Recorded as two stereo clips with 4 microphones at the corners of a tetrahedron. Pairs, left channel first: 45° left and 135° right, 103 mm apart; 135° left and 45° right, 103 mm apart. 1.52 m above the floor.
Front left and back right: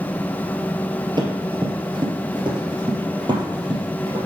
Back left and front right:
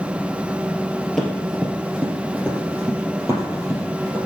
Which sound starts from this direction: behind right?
Running footsteps, at 1.2 s.